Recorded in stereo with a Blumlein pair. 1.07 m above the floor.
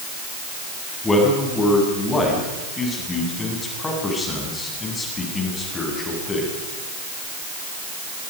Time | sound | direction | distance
1.0 | a man speaking | 15° left | 8.5 m